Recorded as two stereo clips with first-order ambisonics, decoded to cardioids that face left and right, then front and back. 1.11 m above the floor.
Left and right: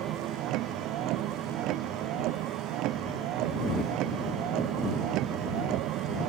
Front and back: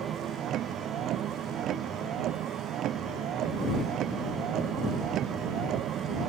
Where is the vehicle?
130° right.